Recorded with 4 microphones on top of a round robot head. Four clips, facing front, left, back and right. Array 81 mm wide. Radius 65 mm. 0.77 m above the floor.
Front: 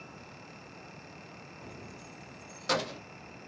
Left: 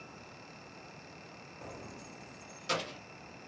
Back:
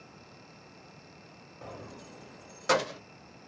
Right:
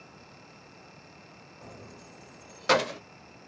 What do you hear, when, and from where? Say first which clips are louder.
1.6 s keys jangling: left 1 dB, back 6 dB; 160° left, 1.0 m; by 3.0 s 95° right, 0.7 m